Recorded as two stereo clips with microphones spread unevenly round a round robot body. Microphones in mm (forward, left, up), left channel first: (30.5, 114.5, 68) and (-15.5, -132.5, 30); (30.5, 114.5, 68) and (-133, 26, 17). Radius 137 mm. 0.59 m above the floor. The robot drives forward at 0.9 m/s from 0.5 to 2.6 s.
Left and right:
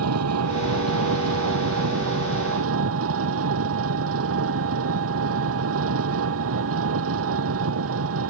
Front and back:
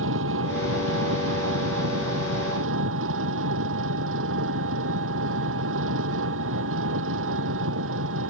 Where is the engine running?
135° right; by 8.3 s 140° right.